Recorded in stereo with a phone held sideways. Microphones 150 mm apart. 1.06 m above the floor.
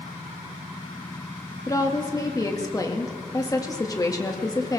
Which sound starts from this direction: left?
A woman speaking, at 1.7 s.